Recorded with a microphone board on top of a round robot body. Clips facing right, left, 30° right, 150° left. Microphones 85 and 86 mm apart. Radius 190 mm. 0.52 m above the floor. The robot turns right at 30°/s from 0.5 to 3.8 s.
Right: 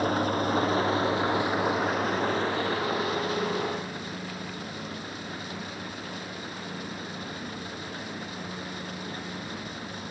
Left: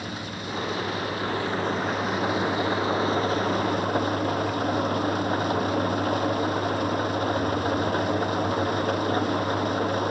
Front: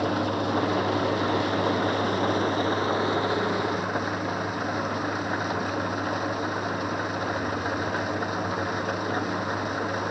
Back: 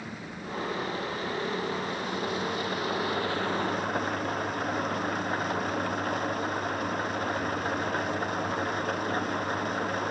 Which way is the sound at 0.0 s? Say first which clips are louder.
Right 8 dB, front 14 dB; 45° right.